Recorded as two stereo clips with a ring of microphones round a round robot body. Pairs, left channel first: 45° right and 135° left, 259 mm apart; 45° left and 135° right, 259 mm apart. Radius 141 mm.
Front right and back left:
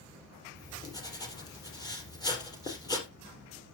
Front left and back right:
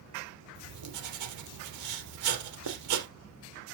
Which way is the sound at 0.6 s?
120° right.